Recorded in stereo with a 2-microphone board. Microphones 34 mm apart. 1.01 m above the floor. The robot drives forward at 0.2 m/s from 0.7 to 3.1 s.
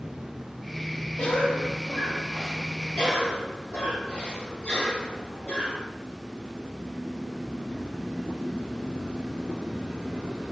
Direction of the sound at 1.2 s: 75° left (ahead or behind).